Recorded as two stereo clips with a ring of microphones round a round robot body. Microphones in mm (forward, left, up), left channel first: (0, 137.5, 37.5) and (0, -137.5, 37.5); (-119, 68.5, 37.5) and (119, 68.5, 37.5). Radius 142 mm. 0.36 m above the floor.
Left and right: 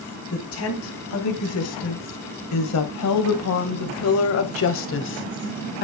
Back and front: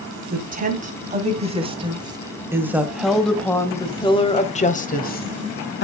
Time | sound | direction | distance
0.3 | a woman speaking | 50° left | 3 m